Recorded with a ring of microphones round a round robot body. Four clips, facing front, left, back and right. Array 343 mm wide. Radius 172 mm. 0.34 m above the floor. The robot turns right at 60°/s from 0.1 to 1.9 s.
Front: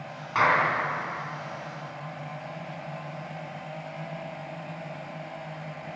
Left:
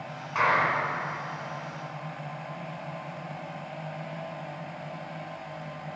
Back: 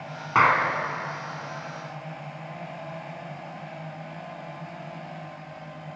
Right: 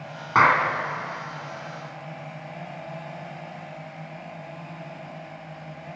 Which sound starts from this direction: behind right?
A clap, at 0.3 s.